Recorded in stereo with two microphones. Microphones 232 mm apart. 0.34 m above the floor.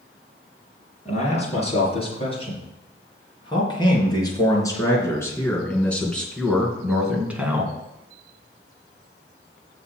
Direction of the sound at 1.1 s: 30° left (ahead or behind).